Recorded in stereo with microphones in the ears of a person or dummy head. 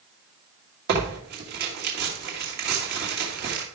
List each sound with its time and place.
0.9 s tearing paper: 55° right (ahead or behind), 2 m